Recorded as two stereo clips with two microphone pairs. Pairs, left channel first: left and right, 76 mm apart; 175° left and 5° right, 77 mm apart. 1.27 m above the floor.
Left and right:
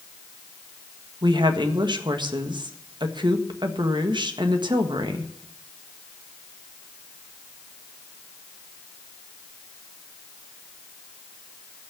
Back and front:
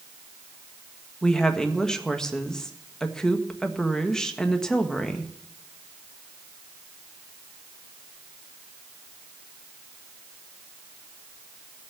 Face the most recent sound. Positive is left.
turn(degrees=-105)